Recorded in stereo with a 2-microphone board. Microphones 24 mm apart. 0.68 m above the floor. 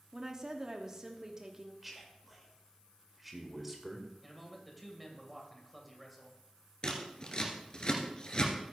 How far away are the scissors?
About 2.0 m.